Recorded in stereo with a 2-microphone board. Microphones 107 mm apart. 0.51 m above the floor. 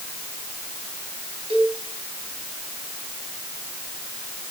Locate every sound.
1.5 s a cowbell: 70° right (ahead or behind), 5.5 m